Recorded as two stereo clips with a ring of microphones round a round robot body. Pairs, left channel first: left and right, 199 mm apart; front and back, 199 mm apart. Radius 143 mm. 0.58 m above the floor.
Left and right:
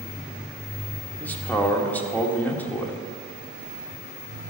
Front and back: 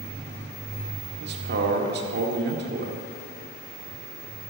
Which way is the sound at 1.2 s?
170° left.